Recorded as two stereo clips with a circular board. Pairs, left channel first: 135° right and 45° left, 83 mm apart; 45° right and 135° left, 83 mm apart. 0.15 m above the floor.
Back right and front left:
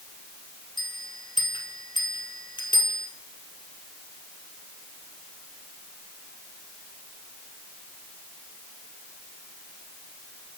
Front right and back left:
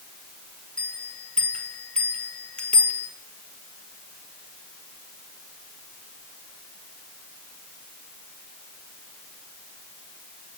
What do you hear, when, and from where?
0.8 s a bell: 120° right, 1.5 m